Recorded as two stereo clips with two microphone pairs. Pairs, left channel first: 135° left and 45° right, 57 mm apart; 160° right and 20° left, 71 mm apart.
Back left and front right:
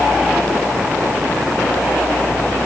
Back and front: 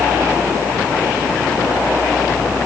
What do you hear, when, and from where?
Only background noise.